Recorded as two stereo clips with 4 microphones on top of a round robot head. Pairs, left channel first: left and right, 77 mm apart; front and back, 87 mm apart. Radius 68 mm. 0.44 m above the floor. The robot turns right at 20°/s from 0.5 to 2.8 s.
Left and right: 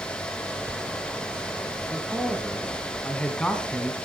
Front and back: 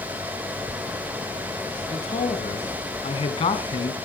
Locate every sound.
1.9 s a man speaking: 10° right, 3.5 m; by 4.0 s 10° left, 3.5 m